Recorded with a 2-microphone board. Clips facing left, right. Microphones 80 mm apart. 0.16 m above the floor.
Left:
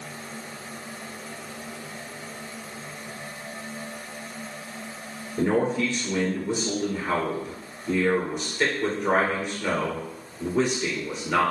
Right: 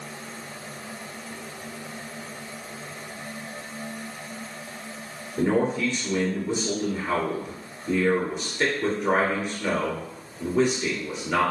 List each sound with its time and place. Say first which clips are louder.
5.4 s a man speaking: even; 5° right (ahead or behind), 2 m